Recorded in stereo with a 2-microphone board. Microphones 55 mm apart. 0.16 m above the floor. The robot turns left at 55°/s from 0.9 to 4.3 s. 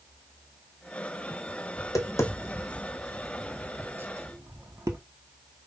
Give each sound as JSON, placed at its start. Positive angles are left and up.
{"t": 1.8, "sound": "tapping", "side_deg": 85, "distance_m": 1.1}